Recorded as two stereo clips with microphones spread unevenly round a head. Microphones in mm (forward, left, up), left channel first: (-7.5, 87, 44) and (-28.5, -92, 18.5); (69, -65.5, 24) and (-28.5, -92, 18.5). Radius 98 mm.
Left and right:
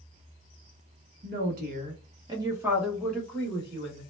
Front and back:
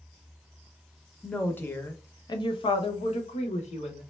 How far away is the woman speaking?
About 1.0 m.